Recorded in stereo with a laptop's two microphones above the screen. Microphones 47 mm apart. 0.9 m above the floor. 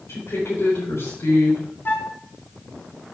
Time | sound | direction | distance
0.1 | a woman speaking | 70° left (ahead or behind) | 4 m
1.9 | a flute | 45° left (ahead or behind) | 1.7 m